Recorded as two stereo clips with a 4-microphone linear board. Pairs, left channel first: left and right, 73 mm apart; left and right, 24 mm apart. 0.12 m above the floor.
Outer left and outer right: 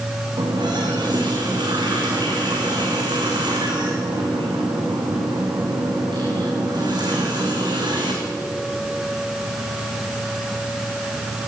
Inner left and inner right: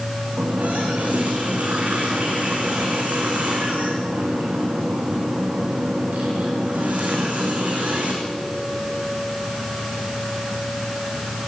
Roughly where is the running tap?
Right.